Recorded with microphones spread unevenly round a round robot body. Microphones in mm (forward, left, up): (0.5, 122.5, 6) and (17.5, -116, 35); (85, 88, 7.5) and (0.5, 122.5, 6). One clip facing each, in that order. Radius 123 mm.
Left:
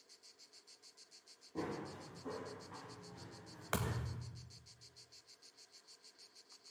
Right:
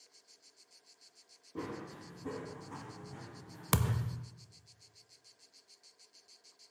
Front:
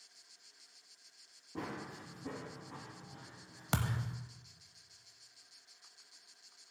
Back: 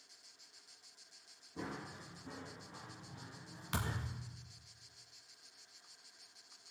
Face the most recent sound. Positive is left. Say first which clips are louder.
# right 6 dB, front 4 dB
turn(degrees=-50)